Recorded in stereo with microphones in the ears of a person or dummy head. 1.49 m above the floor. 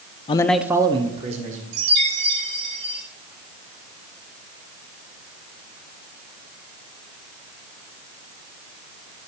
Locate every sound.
0.3 s a man speaking: 30° left (ahead or behind), 0.5 m; by 1.6 s 40° right (ahead or behind), 1.6 m
1.7 s a chime: 70° right (ahead or behind), 6 m